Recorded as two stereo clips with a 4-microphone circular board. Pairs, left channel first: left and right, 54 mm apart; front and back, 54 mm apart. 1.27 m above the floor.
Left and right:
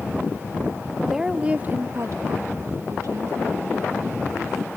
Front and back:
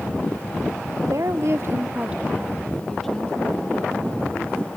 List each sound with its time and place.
1.0 s a woman speaking: 175° right, 1.2 m; by 4.7 s 65° right, 3 m